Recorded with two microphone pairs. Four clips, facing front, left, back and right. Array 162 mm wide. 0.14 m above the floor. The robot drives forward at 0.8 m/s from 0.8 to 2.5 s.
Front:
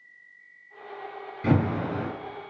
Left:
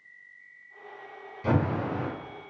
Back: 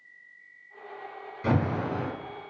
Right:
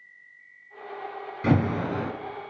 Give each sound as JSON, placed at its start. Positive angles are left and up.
{"t": 1.4, "sound": "an alarm", "azimuth_deg": -55, "distance_m": 3.0}